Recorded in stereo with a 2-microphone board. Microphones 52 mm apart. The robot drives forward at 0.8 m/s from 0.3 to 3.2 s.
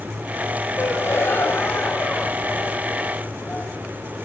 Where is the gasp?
55° left (ahead or behind), 2.5 m; by 3.7 s 30° left (ahead or behind), 4 m.